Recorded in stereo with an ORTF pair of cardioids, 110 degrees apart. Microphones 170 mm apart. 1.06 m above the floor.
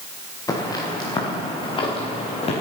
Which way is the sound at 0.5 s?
20° left.